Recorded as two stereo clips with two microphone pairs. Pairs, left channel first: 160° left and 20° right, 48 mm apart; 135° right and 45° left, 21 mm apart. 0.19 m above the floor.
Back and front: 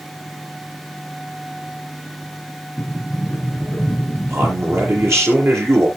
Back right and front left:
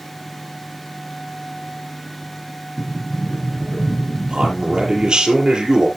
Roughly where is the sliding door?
Behind.